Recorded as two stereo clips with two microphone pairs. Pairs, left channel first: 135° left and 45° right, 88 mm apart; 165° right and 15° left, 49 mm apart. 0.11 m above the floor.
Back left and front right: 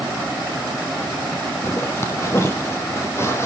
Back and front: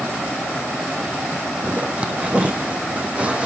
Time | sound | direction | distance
1.6 | a zipper | 80° left | 2.5 m